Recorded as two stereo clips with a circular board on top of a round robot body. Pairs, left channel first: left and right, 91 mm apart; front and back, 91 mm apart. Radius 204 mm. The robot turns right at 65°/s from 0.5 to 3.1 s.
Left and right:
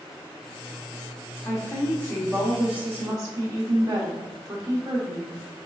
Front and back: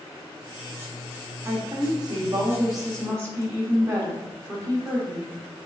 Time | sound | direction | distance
1.4 | a woman speaking | 120° left | 1.3 m